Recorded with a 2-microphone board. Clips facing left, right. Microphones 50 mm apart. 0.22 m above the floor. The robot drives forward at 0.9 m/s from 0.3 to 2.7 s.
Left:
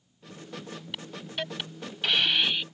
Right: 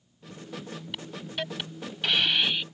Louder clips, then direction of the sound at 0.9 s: Even; centre (ahead or behind).